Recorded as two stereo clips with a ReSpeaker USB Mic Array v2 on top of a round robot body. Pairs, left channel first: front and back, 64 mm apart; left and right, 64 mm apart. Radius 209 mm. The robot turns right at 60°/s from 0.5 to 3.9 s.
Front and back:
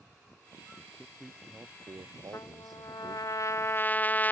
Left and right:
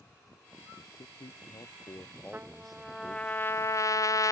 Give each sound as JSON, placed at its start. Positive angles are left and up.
{"t": 0.8, "sound": "a man speaking", "azimuth_deg": 65}
{"t": 2.3, "sound": "a trumpet", "azimuth_deg": -30}